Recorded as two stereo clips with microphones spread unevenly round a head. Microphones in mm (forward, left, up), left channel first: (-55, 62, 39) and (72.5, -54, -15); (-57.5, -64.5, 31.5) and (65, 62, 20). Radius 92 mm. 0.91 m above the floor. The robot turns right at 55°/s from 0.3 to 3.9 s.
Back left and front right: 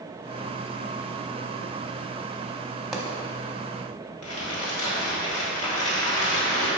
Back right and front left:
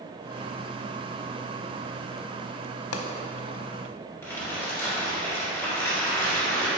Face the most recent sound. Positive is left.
turn(degrees=150)